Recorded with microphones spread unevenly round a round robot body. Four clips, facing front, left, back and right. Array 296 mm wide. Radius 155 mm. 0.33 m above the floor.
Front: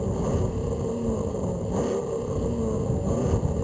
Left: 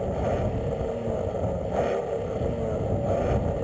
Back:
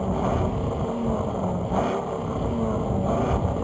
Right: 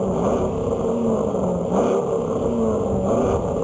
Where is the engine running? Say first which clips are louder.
Right 7 dB, back 3 dB; 115° right.